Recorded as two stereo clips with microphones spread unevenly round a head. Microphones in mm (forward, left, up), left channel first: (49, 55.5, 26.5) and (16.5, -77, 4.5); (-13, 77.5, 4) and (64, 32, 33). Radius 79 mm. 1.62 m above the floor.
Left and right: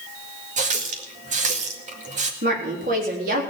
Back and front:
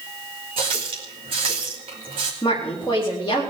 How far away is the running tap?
About 1.9 m.